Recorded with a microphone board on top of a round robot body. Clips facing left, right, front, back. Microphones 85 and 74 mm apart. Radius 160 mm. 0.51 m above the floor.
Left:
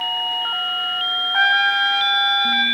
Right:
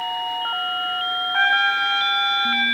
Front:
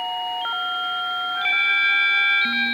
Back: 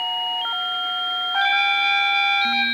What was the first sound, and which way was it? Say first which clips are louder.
A trumpet: left 2 dB, back 4 dB; 170° left.